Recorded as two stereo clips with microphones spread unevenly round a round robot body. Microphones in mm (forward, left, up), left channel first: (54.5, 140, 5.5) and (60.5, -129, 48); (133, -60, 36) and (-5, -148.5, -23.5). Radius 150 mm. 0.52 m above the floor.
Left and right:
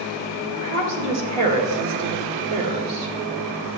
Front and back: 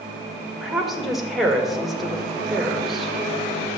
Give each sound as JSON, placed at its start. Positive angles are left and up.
{"t": 0.6, "sound": "a woman speaking", "azimuth_deg": -70, "distance_m": 2.0}